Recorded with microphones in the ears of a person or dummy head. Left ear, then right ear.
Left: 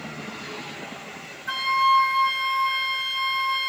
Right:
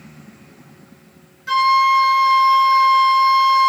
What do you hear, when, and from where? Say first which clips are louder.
1.5 s a flute: right 6 dB; 5° right (ahead or behind), 1.1 m